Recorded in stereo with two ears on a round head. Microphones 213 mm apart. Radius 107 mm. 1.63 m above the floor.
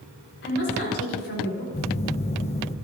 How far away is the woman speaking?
About 5.5 m.